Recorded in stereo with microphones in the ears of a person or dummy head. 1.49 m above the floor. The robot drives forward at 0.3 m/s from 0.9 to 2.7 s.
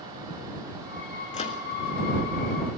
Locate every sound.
1.3 s a microwave: 35° left (ahead or behind), 2.5 m